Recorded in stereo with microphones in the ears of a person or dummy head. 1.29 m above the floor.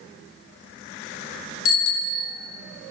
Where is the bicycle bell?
75° left (ahead or behind), 3 m.